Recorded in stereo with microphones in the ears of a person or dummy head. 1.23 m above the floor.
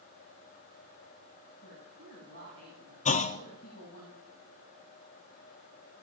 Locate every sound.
1.6 s a woman speaking: 65° left (ahead or behind), 8 m
3.0 s a clunk: 40° left (ahead or behind), 0.6 m